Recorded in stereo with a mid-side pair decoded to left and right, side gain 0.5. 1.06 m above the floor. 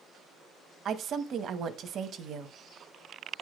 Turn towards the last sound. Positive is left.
turn(degrees=-55)